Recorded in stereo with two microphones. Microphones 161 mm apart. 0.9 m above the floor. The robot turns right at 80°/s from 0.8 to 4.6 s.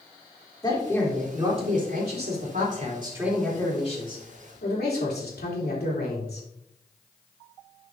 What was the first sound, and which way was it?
A man speaking, 155° left.